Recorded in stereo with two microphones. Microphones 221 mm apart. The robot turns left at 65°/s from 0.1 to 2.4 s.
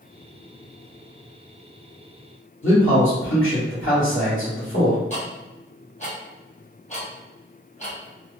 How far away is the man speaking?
About 1.6 m.